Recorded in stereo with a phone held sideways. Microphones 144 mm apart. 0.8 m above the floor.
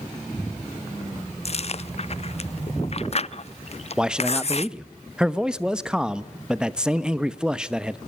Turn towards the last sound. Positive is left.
turn(degrees=-5)  # may be behind; listen again after turning